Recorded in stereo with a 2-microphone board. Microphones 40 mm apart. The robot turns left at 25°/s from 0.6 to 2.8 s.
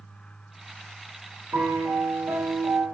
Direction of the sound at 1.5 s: 60° right.